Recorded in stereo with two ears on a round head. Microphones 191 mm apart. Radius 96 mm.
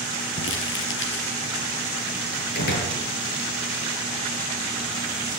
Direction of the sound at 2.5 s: 50° left (ahead or behind).